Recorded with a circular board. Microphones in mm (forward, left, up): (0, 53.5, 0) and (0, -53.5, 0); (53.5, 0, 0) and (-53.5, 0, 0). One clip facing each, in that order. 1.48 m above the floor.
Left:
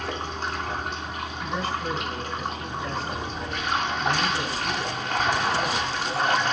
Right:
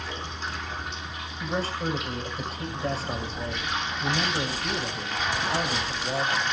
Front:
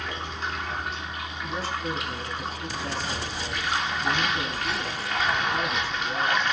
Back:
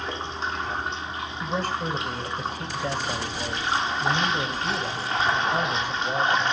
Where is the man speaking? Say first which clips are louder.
Right 1 dB, back 3 dB; 145° right, 6 m.